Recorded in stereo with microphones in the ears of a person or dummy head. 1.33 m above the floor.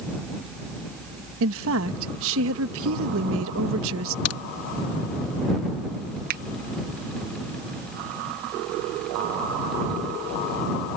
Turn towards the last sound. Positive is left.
turn(degrees=-50)  # may be behind; listen again after turning